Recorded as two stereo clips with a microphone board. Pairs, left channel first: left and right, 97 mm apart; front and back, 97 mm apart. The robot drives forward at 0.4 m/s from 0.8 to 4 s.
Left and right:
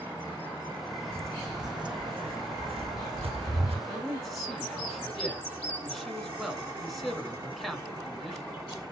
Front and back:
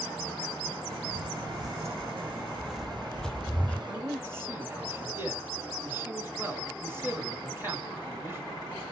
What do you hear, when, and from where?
1.1 s footsteps: 155° right, 0.5 m; by 3.8 s 80° right, 0.9 m
3.9 s a man speaking: 175° right, 1.6 m